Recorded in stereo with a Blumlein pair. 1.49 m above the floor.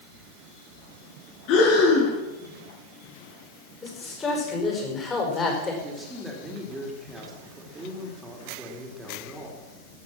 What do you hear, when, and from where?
1.5 s breathing: 45° left, 4.5 m
3.8 s a man speaking: 20° left, 5 m
5.8 s a man speaking: 10° right, 3.5 m